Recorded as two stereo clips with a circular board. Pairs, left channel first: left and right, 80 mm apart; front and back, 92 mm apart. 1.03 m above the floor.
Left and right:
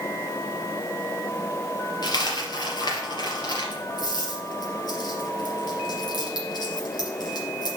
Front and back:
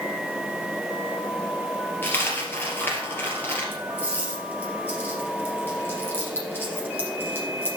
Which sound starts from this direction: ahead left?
A dropped coin, at 2.0 s.